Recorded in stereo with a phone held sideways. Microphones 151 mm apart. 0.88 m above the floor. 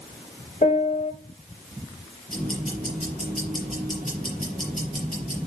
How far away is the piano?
About 1.3 m.